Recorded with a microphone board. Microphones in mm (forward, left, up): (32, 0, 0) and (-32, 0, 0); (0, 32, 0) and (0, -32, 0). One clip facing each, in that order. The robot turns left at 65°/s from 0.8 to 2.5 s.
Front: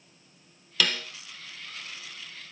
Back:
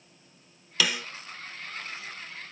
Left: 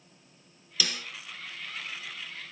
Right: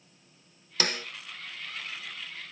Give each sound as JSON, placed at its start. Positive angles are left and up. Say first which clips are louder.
{"t": 0.8, "sound": "a snare drum", "louder": "even, right 4 dB", "azimuth_deg": -100, "distance_m": 0.8}